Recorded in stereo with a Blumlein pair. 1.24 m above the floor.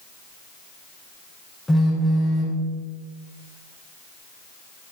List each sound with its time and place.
1.7 s a phone buzzing: 5° left, 3.5 m